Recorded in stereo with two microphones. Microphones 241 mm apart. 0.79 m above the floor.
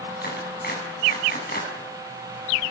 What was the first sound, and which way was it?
A clap, 40° left (ahead or behind).